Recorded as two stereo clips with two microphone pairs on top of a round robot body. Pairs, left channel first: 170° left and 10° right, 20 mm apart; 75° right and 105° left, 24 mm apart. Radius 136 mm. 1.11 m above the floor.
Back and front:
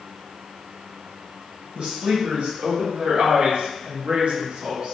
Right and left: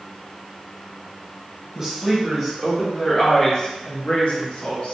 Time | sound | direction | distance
1.8 | a woman speaking | 25° left | 1.5 m